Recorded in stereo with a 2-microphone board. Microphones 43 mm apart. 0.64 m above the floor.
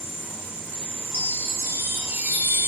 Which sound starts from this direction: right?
A chime, at 1.1 s.